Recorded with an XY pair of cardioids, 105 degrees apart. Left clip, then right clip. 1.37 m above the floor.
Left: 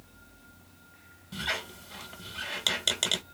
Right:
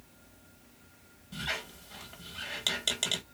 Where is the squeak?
30° left, 1.1 m.